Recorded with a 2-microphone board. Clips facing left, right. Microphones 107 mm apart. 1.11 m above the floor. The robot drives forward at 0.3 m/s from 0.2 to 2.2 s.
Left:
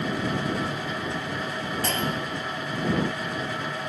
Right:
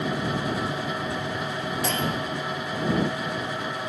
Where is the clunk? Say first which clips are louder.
Right 1 dB; 5° right (ahead or behind), 1.9 m.